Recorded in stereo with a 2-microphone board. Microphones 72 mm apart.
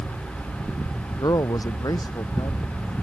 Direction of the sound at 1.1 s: 60° left (ahead or behind).